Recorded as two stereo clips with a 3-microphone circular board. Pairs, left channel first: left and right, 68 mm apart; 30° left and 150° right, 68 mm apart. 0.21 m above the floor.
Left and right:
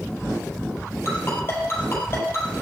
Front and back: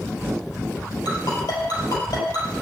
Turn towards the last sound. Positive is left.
turn(degrees=35)